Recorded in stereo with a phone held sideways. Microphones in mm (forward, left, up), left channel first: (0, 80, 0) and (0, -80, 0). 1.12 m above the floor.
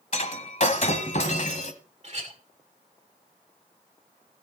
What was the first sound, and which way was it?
Breaking glass, 55° left (ahead or behind).